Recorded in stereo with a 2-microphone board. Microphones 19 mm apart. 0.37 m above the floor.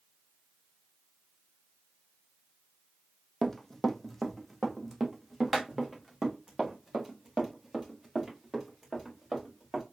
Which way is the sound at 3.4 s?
15° left (ahead or behind).